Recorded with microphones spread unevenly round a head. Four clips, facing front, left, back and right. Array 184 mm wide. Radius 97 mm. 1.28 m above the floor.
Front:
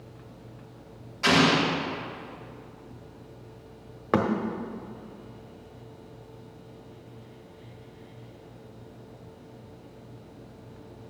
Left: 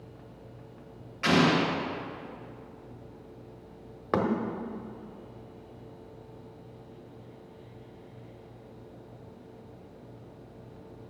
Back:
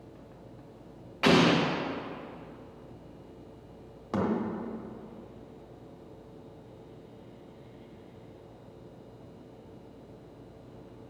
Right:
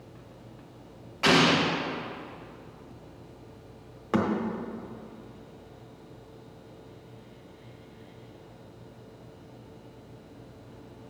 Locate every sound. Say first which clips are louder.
1.2 s an explosion: right 1 dB, front 1 dB; 165° right, 1.2 m
4.1 s a thud: right 1 dB, front 6 dB; 10° left, 1.1 m